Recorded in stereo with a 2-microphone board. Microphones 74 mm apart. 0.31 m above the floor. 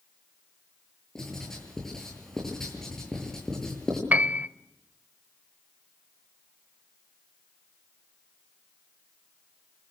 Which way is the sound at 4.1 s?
20° right (ahead or behind).